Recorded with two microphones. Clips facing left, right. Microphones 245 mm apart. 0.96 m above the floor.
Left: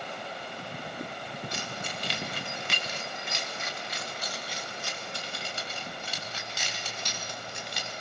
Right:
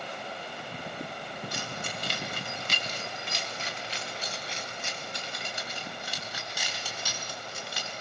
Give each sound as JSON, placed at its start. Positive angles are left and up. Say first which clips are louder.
{"t": 1.5, "sound": "keys jangling", "louder": "even", "side_deg": -55, "distance_m": 3.5}